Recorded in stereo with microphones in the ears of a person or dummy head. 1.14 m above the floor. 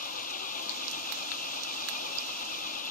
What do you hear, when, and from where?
0.0 s an engine running: 50° left (ahead or behind)